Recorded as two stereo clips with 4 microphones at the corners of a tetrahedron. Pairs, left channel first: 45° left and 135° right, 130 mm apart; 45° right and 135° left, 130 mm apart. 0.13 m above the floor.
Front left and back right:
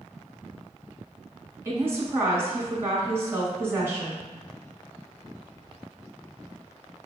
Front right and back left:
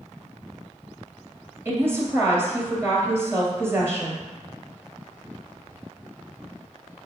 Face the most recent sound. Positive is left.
turn(degrees=180)